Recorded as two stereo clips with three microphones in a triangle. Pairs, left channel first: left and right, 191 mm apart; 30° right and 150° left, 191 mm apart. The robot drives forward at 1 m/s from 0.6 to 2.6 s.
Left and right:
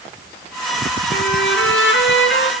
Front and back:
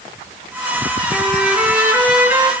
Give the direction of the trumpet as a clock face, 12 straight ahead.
10 o'clock.